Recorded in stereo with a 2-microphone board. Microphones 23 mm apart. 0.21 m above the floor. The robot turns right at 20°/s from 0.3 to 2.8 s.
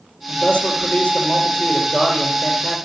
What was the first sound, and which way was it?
A man speaking, 70° left.